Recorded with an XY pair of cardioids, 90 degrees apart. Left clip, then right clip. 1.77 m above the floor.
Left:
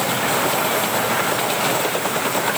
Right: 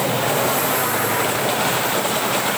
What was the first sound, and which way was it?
Only background noise.